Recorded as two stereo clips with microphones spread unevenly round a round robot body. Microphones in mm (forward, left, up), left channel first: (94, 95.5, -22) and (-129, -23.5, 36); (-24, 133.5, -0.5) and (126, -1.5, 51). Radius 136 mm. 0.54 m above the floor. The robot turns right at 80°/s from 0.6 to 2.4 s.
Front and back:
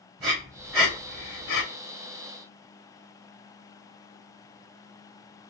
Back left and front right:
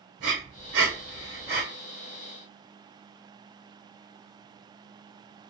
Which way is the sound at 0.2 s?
75° right.